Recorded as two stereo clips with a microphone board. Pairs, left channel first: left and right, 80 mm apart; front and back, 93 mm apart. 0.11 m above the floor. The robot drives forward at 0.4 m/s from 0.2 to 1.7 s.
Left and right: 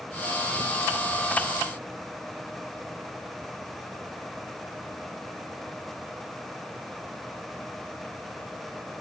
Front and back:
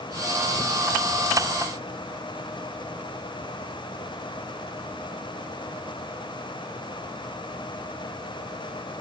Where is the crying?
I don't hear crying.